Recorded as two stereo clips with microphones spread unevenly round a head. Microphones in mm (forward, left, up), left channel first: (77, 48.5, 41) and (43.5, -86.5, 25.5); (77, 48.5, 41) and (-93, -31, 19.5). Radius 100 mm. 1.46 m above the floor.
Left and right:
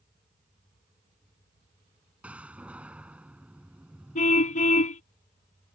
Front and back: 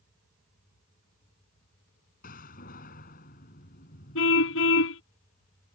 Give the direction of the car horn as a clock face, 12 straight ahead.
10 o'clock.